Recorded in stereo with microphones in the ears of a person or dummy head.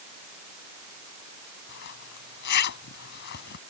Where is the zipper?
55° left (ahead or behind).